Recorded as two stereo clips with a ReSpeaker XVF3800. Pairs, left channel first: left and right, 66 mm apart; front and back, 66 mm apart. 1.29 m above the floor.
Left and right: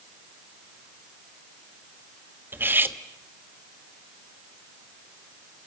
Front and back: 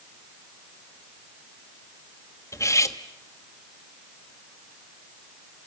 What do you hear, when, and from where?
2.5 s cutlery clinking: 35° right, 1.2 m